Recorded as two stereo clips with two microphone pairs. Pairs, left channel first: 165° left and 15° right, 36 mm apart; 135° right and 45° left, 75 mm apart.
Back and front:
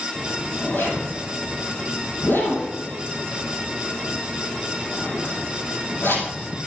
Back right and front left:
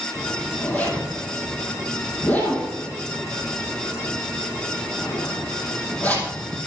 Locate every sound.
0.1 s a zipper: 155° left, 4 m